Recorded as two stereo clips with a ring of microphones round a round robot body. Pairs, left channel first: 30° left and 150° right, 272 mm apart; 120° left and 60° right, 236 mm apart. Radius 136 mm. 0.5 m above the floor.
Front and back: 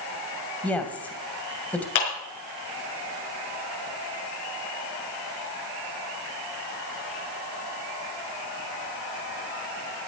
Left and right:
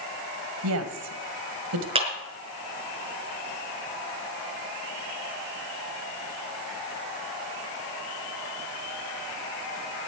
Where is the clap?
5° left, 5 m.